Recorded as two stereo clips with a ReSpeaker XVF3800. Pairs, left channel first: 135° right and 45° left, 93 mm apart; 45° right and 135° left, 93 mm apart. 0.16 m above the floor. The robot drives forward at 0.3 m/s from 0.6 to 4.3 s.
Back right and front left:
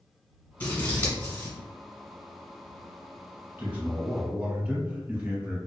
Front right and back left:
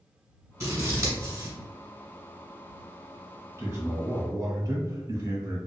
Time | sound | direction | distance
0.6 | scissors | 165° left | 1.3 m
3.6 | a man speaking | 100° left | 1.3 m